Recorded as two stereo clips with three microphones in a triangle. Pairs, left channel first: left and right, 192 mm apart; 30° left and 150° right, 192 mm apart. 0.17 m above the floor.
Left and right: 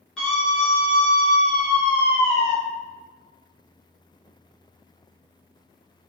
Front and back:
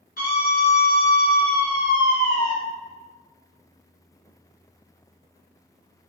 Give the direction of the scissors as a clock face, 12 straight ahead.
I don't hear scissors.